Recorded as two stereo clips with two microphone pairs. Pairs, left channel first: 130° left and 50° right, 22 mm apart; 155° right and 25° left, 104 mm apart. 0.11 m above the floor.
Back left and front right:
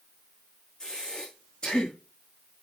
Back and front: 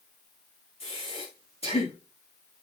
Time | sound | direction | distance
0.8 | breathing | 175° right | 6 m